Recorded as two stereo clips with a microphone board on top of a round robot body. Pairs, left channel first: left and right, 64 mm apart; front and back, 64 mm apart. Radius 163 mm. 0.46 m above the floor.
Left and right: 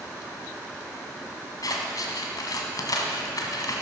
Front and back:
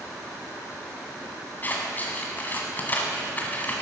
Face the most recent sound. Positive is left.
turn(degrees=60)